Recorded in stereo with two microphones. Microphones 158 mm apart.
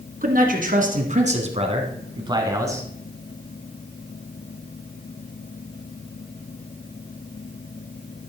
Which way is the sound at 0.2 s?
65° right (ahead or behind).